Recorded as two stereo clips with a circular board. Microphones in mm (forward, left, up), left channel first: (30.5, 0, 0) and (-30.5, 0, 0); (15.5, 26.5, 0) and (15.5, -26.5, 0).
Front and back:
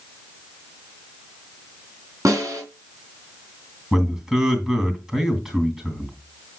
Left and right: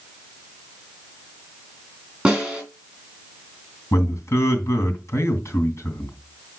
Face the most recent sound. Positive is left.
turn(degrees=100)